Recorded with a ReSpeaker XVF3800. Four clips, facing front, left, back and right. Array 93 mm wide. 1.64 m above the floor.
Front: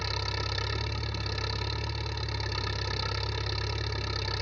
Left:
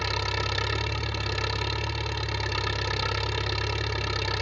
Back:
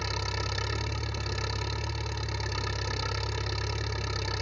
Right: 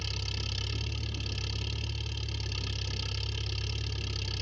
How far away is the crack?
No crack in this recording.